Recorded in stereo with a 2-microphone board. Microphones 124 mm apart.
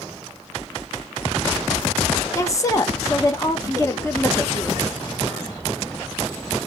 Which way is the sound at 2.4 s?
25° left (ahead or behind).